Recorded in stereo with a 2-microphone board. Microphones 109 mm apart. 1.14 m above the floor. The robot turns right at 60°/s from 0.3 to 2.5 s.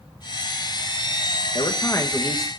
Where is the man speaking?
130° left, 1.4 m; by 2.5 s 175° right, 1.4 m.